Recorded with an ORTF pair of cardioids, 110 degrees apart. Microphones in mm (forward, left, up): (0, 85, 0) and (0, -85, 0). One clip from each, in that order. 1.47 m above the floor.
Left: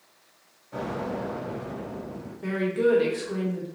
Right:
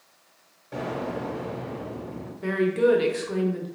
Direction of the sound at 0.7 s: 65° right.